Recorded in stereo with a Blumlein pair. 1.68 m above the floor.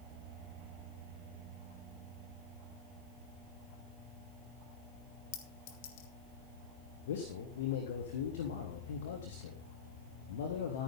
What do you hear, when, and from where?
5.3 s a clink: 45° left, 1.7 m
7.1 s a man speaking: 60° left, 2.0 m